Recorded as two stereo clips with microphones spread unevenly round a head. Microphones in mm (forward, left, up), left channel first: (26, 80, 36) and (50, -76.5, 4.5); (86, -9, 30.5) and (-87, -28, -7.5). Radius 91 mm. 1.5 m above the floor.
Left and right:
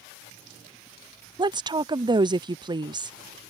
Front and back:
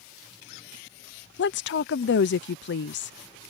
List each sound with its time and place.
1.4 s a woman speaking: 20° right